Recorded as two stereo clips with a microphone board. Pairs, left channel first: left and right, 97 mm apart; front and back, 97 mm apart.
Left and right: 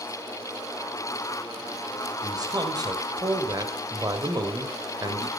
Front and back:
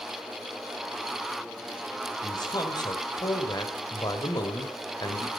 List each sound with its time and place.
2.2 s a man speaking: 45° right, 2.5 m